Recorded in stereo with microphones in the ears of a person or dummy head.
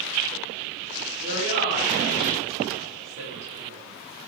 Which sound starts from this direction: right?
A woman speaking, at 1.2 s.